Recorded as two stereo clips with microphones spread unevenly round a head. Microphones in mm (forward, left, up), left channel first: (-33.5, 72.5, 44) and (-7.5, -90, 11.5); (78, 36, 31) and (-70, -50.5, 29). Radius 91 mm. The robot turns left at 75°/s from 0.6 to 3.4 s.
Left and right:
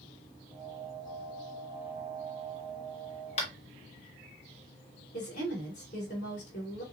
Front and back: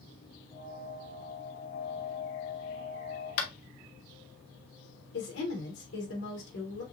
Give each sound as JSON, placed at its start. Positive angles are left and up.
{"t": 3.4, "sound": "tapping", "azimuth_deg": 45, "distance_m": 1.1}
{"t": 5.1, "sound": "a woman speaking", "azimuth_deg": 50, "distance_m": 2.5}